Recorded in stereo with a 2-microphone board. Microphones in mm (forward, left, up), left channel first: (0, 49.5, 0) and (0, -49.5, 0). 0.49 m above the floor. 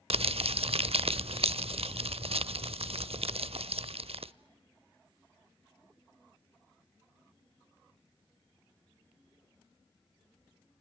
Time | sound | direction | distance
0.1 | crumpling | 80° right | 0.5 m